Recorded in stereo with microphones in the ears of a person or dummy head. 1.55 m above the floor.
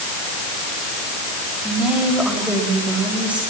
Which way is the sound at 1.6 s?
5° right (ahead or behind).